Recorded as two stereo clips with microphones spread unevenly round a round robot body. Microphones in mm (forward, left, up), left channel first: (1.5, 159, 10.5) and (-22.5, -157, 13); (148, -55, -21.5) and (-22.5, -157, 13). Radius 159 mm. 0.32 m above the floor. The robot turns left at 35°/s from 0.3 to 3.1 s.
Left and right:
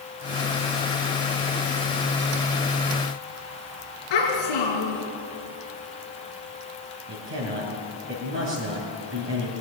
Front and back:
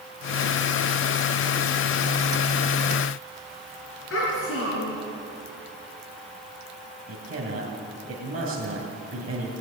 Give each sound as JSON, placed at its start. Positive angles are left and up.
{"t": 4.1, "sound": "a child speaking", "azimuth_deg": 75, "distance_m": 3.5}
{"t": 7.1, "sound": "a man speaking", "azimuth_deg": -145, "distance_m": 2.5}